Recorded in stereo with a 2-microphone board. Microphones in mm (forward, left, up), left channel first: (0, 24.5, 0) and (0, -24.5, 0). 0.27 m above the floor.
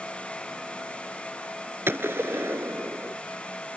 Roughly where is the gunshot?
Right.